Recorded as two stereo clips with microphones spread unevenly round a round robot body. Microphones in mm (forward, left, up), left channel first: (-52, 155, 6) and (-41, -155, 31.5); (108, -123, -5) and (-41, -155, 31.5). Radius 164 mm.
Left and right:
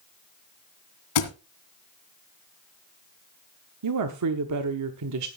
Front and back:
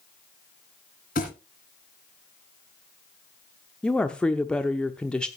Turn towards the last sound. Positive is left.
turn(degrees=-60)